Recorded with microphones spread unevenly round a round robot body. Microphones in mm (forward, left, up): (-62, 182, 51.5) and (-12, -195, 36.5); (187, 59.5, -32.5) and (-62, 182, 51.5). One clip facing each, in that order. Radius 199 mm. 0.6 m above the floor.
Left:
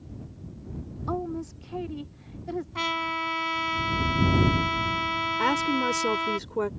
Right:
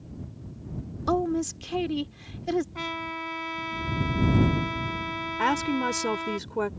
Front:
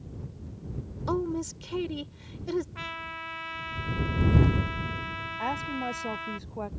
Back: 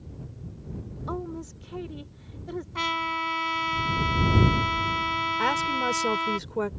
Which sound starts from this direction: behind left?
A trumpet, at 2.8 s.